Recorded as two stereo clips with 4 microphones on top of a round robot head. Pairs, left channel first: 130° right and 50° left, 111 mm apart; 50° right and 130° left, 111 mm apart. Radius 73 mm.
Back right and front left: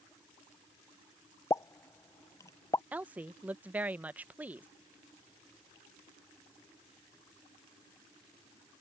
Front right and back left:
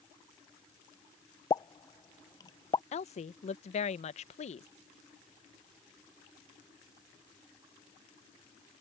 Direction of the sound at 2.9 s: 25° right.